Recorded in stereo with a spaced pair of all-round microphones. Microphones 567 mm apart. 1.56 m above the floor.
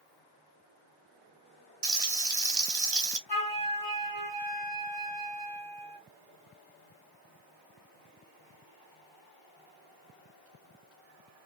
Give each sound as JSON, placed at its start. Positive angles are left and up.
{"t": 1.8, "sound": "frying", "side_deg": -85, "distance_m": 0.8}
{"t": 3.3, "sound": "a flute", "side_deg": 40, "distance_m": 1.8}